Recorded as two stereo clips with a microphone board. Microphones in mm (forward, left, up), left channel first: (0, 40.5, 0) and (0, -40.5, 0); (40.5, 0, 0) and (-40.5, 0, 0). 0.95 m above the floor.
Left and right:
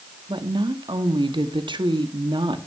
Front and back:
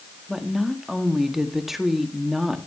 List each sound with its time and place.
0.3 s a woman speaking: 95° right, 1.7 m